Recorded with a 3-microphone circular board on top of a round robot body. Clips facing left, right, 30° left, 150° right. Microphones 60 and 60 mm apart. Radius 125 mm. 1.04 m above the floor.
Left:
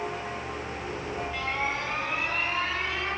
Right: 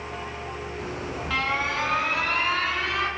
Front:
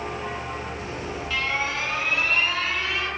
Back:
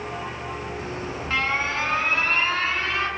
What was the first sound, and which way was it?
An alarm, 100° right.